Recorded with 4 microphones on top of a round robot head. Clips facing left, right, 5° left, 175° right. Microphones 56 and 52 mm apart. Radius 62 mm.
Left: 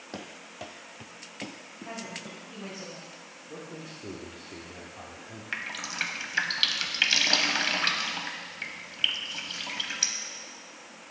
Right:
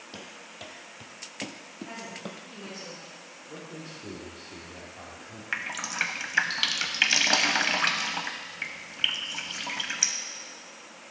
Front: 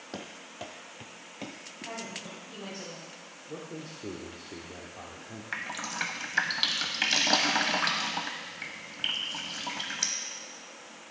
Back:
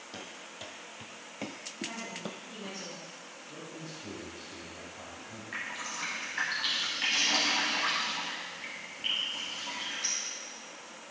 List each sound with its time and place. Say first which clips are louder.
0.1 s running footsteps: left 4 dB, front 4 dB; 40° left, 0.8 m; by 2.8 s 135° right, 1.0 m
1.9 s a woman speaking: left 1 dB, front 2 dB; 45° left, 4 m
3.5 s a man speaking: even, front 4 dB; 10° left, 1.3 m
5.5 s dripping: right 3 dB, front 3 dB; 25° right, 0.7 m